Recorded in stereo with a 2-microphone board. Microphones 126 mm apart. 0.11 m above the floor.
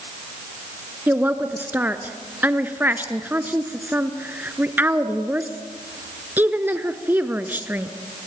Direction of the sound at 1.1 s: 15° right (ahead or behind).